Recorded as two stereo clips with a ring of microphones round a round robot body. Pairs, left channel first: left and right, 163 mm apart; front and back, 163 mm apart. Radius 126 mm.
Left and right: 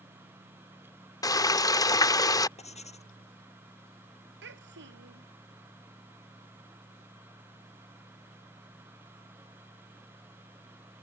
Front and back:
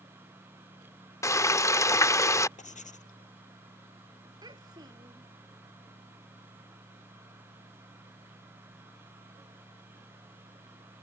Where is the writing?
40° left.